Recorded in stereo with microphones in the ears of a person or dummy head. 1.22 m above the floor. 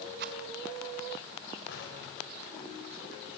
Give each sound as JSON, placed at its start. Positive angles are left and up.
{"t": 0.2, "sound": "a rattle", "side_deg": -60, "distance_m": 1.5}
{"t": 1.7, "sound": "an explosion", "side_deg": 70, "distance_m": 6.5}